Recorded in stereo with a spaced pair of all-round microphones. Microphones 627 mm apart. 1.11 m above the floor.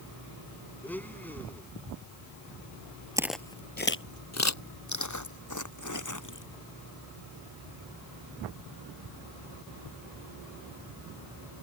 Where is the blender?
5° left (ahead or behind).